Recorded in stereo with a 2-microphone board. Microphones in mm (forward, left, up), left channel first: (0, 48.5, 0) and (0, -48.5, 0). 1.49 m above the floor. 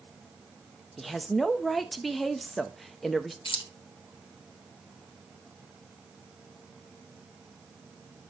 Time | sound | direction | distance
1.0 | a woman speaking | centre (ahead or behind) | 0.8 m
3.5 | keys jangling | 60° left (ahead or behind) | 1.0 m